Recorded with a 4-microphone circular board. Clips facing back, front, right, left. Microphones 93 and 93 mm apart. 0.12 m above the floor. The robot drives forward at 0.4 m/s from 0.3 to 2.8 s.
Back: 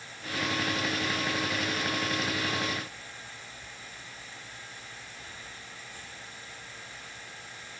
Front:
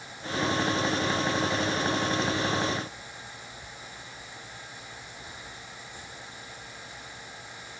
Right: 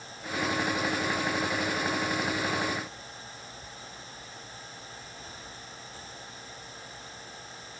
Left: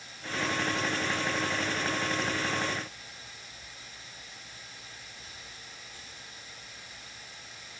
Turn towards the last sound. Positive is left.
No sound to turn to.